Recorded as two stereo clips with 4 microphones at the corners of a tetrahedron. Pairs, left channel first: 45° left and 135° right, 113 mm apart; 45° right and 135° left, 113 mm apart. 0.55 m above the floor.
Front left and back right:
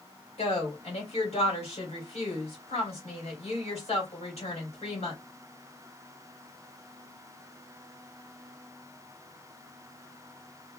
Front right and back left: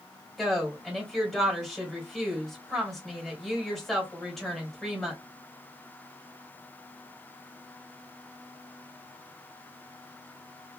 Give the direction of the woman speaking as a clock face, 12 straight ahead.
11 o'clock.